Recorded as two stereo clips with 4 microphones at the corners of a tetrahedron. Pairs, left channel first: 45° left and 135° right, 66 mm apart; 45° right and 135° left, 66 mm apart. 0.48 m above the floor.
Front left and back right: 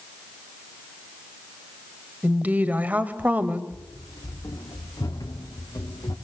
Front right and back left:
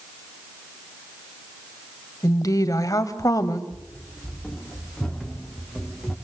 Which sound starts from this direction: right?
A woman speaking, at 2.2 s.